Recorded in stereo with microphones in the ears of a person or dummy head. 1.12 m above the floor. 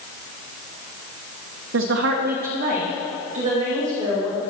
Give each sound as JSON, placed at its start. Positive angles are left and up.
{"t": 1.7, "sound": "a woman speaking", "side_deg": -75, "distance_m": 0.6}